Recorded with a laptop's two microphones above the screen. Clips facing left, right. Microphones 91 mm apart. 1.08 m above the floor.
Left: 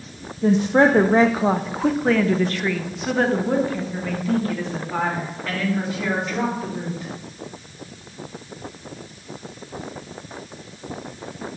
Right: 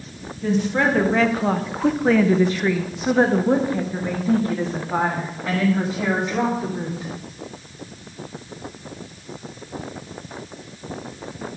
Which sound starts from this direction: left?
A woman speaking, at 0.4 s.